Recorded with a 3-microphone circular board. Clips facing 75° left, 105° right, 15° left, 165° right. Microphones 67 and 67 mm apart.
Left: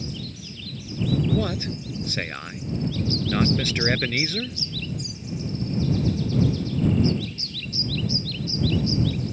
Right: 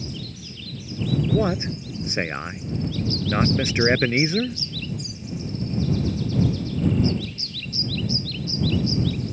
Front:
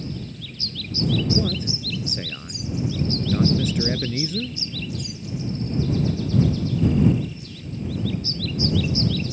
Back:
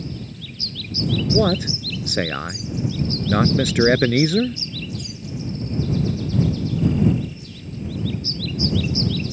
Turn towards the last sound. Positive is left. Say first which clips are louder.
# right 3 dB, back 6 dB
turn(degrees=-175)